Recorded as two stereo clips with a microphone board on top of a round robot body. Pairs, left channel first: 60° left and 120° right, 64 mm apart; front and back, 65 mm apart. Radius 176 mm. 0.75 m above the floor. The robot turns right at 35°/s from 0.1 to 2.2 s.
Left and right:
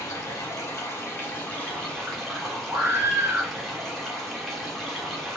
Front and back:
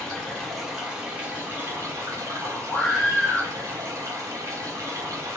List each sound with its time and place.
0.0 s running water: 75° left, 1.3 m; by 5.4 s 145° left, 1.3 m
2.7 s a scream: 80° right, 1.6 m